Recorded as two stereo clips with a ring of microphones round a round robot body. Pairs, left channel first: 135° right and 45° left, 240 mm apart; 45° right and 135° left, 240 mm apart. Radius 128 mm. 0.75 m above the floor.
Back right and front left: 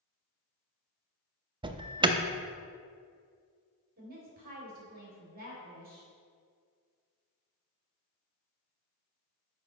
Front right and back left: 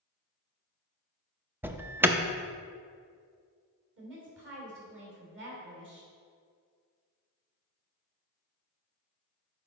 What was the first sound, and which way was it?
An alarm, 70° left.